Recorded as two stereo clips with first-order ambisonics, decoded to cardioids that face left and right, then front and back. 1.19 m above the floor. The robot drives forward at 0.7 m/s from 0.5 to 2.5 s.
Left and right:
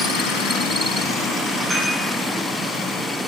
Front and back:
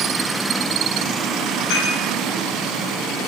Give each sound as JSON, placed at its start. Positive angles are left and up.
{"t": 1.7, "sound": "dishes clattering", "azimuth_deg": -20, "distance_m": 7.5}